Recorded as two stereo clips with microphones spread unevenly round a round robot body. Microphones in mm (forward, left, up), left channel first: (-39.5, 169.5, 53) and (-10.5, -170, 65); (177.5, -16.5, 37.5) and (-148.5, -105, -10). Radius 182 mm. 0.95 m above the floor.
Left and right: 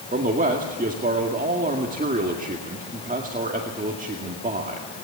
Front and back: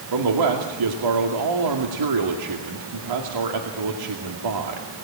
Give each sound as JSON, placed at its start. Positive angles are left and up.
{"t": 0.1, "sound": "a man speaking", "azimuth_deg": -155, "distance_m": 2.0}